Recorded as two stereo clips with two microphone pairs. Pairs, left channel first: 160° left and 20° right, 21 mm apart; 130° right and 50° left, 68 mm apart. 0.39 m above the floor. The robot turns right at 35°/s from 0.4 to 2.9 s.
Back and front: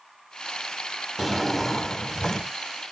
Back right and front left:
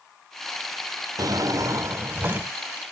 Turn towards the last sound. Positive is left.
turn(degrees=130)